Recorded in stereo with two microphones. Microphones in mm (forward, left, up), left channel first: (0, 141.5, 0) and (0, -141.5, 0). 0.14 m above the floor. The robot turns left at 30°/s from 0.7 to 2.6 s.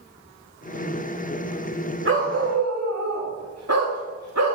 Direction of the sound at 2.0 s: 45° right (ahead or behind).